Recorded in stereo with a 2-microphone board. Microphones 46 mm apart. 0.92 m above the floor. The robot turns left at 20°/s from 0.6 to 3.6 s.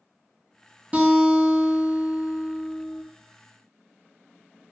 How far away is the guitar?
About 0.8 m.